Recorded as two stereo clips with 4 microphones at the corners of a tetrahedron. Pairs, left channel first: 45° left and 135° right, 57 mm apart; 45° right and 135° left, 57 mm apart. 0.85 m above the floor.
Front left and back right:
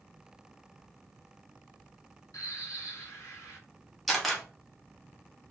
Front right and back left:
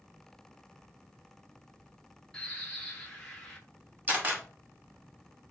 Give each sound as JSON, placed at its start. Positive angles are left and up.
{"t": 2.3, "sound": "a bird", "azimuth_deg": 35, "distance_m": 0.9}
{"t": 4.1, "sound": "a camera shutter", "azimuth_deg": 135, "distance_m": 0.7}